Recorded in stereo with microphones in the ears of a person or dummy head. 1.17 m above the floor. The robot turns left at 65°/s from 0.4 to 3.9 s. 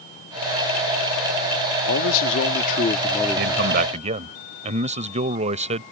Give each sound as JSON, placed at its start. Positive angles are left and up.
{"t": 1.9, "sound": "a man speaking", "azimuth_deg": 105}
{"t": 3.4, "sound": "a man speaking", "azimuth_deg": -110}